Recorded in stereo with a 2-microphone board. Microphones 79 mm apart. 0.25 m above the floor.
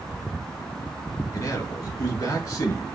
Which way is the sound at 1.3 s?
40° left (ahead or behind).